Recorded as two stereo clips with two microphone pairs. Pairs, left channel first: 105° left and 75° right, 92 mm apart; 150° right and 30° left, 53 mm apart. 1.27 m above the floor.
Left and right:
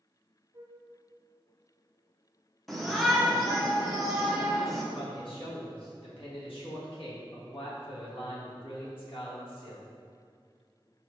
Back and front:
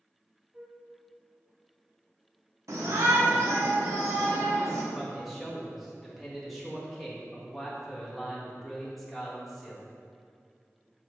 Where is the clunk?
I don't hear a clunk.